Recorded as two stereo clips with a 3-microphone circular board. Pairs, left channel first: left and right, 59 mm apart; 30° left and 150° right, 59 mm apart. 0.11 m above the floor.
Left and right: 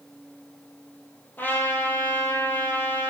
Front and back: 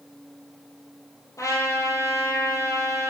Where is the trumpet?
35° left, 2 m.